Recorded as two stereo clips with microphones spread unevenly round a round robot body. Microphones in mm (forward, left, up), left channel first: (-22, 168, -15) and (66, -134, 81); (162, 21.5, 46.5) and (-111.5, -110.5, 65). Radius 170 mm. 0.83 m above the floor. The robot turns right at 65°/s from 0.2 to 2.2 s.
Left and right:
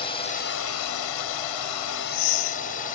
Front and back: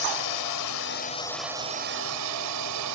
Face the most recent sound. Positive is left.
turn(degrees=165)